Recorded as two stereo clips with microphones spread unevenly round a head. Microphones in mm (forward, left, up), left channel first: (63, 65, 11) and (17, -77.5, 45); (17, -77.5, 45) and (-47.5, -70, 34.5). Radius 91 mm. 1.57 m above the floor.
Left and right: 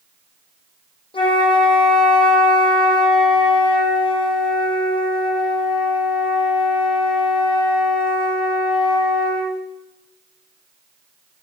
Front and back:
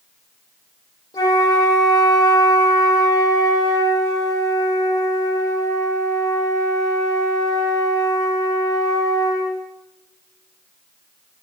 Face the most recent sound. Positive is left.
turn(degrees=15)